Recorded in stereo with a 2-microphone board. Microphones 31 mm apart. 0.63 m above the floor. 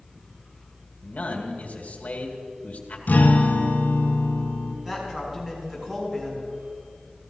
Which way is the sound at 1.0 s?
55° left (ahead or behind).